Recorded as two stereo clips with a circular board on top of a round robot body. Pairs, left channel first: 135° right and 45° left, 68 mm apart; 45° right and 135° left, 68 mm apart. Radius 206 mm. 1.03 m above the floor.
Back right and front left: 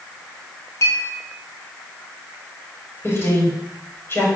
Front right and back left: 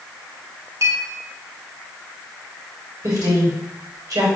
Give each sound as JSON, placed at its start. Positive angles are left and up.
{"t": 0.8, "sound": "a clink", "azimuth_deg": 180, "distance_m": 2.5}
{"t": 3.0, "sound": "a woman speaking", "azimuth_deg": 165, "distance_m": 4.5}